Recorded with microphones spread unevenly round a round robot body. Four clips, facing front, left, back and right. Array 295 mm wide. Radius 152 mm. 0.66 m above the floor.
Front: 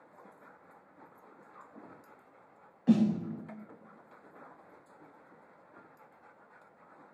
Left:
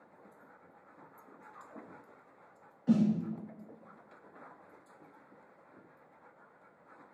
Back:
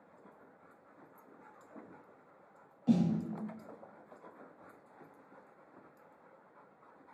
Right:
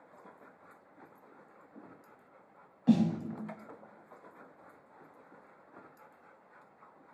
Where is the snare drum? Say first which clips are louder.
Right 1 dB, front 4 dB; 70° right, 1.2 m.